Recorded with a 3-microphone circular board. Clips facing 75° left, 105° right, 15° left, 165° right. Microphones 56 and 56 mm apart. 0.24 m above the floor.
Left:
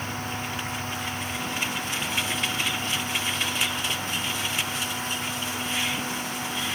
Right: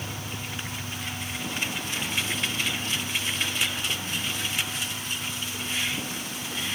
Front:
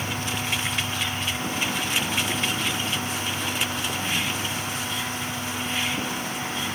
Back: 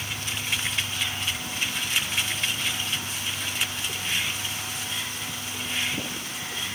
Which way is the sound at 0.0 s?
25° right.